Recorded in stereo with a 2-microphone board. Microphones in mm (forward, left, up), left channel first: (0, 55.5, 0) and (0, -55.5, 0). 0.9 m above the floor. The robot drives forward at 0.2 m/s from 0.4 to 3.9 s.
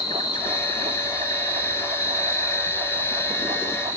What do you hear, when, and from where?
0.0 s an insect: 40° left (ahead or behind), 1.3 m; by 4.0 s 30° left (ahead or behind), 1.8 m